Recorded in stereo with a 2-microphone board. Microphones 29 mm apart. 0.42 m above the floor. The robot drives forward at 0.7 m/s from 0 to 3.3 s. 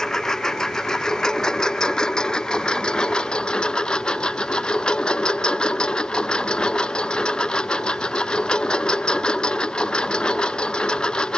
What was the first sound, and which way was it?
A lawn mower, 20° left (ahead or behind).